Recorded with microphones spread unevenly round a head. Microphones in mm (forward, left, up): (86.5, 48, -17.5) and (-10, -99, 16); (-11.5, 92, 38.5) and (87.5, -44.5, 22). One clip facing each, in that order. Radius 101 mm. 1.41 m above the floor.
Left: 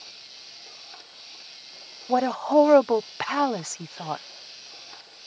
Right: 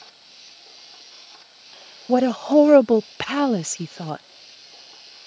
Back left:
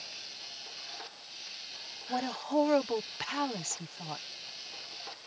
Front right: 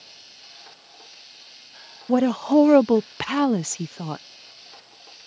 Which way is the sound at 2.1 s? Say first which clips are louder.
Right 5 dB, front right 14 dB; 65° right.